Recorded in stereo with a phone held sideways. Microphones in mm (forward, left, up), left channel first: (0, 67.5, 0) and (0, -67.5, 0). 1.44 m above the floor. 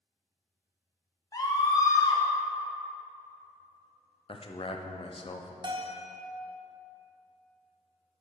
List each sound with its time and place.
1.3 s a scream: 25° left (ahead or behind), 1.1 m
4.3 s a man speaking: 45° left (ahead or behind), 0.5 m
5.6 s a bell: 35° right (ahead or behind), 0.7 m